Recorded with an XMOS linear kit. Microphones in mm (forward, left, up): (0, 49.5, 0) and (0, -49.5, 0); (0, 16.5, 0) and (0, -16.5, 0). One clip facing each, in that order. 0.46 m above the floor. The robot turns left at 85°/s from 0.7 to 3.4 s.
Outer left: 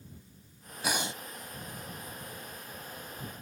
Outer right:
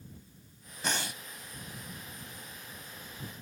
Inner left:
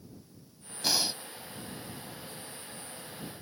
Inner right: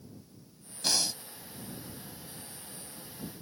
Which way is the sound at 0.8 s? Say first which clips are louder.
Outer left 2 dB, inner left 1 dB; 175° left.